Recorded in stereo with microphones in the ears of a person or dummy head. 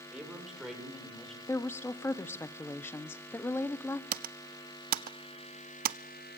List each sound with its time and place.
0.1 s a man speaking: centre (ahead or behind), 6.5 m; by 1.4 s 5° left (ahead or behind), 7.5 m
1.5 s a woman speaking: 15° left (ahead or behind), 0.9 m
4.1 s typing on a keyboard: 50° right (ahead or behind), 0.5 m